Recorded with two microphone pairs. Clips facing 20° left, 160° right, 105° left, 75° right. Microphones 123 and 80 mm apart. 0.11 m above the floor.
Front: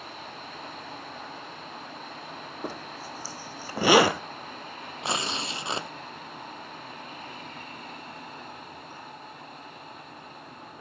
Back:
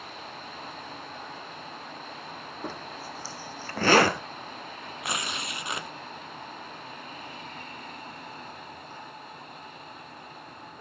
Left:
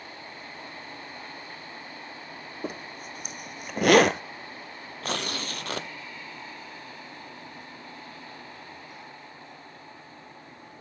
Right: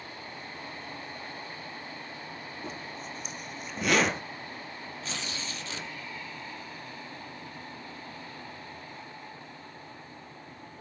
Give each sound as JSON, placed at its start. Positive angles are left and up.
{"t": 2.6, "sound": "a zipper", "azimuth_deg": 95, "distance_m": 0.9}
{"t": 5.0, "sound": "tearing paper", "azimuth_deg": 80, "distance_m": 0.5}